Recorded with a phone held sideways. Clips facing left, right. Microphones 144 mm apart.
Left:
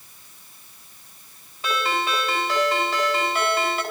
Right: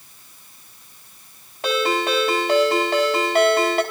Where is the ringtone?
70° right (ahead or behind), 4 m.